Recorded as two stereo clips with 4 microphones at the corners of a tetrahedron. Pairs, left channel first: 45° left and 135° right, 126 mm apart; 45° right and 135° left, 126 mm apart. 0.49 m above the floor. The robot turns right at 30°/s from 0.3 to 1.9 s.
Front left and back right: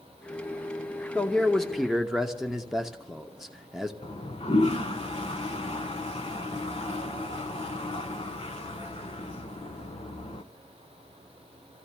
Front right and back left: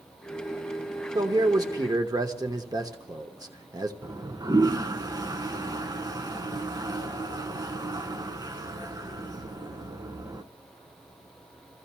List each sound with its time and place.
1.1 s a man speaking: 115° left, 1.0 m; by 3.9 s 140° left, 1.0 m
4.0 s a toilet flushing: 80° left, 0.8 m